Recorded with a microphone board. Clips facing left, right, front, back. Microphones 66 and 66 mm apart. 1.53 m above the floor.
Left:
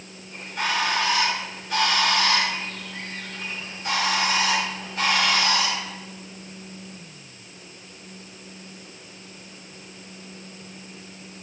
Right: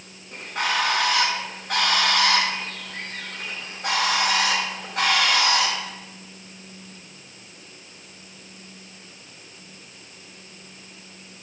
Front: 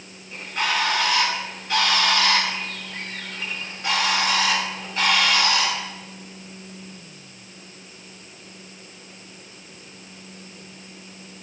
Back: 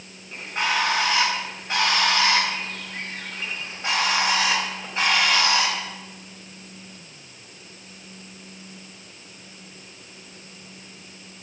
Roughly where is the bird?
Behind right.